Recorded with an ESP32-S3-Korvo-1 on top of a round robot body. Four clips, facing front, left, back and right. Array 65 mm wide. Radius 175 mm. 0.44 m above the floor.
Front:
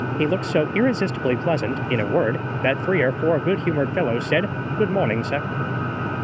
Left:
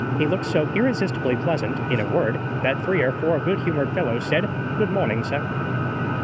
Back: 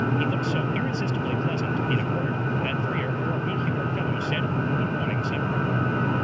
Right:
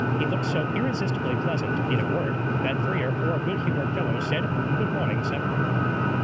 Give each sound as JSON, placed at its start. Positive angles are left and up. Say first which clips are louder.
{"t": 0.2, "sound": "a man speaking", "louder": "left 5 dB, front 5 dB", "azimuth_deg": 30}